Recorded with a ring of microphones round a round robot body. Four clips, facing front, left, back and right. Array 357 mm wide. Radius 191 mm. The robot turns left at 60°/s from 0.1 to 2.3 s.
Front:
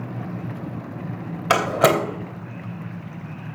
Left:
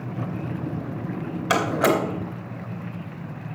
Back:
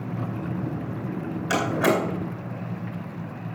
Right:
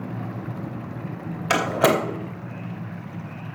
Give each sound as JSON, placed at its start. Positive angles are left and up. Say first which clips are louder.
{"t": 1.5, "sound": "a door slam", "louder": "right 1 dB, front 5 dB", "azimuth_deg": -10, "distance_m": 2.5}